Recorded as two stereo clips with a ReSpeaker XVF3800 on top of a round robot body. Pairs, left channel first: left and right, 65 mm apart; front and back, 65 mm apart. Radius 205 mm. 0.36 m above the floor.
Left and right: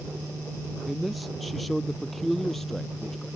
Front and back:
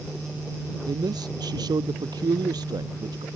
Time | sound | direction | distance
0.9 | a man speaking | straight behind | ?